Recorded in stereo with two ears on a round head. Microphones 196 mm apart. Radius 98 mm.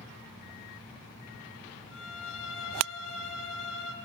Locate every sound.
1.9 s a violin: 65° left (ahead or behind), 3 m